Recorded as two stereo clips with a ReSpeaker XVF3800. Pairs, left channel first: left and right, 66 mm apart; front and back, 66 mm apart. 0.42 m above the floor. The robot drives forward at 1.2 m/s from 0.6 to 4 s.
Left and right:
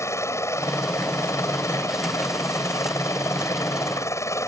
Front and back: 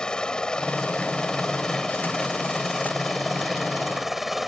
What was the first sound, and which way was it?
A helicopter, 75° left.